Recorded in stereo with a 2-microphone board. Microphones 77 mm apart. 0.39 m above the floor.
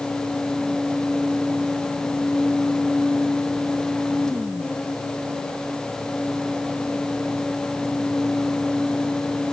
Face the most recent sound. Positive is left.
No sound to turn to.